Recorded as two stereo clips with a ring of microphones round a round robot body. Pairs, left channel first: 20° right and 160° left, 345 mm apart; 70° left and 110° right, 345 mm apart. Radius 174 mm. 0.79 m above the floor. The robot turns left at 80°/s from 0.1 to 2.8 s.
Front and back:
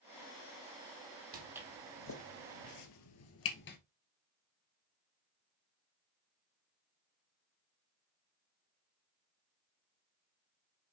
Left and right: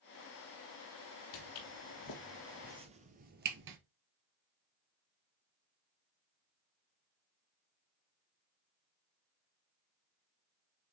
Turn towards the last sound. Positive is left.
turn(degrees=-75)